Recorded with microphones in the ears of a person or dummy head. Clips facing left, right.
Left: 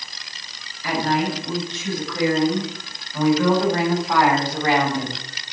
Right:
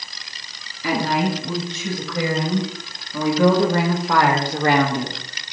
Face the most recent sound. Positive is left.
turn(degrees=-45)  # may be behind; listen again after turning